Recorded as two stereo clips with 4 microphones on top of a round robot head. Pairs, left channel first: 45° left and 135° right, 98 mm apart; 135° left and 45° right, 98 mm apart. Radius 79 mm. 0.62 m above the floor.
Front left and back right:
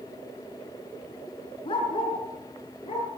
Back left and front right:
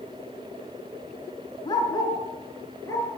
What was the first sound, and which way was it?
A dog barking, 85° left.